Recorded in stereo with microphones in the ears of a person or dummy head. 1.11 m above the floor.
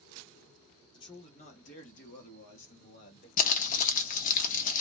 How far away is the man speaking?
About 0.8 m.